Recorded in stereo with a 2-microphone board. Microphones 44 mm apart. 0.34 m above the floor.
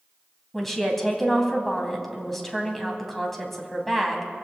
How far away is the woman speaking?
About 2.5 m.